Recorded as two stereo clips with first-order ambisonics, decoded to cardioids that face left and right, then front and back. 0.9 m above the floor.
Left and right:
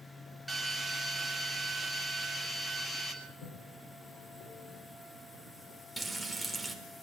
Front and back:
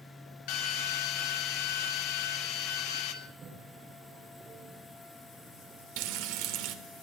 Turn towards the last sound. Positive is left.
turn(degrees=-175)